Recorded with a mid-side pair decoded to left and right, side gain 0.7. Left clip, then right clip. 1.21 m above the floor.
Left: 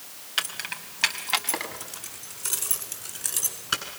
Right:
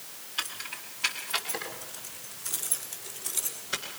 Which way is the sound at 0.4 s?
60° left.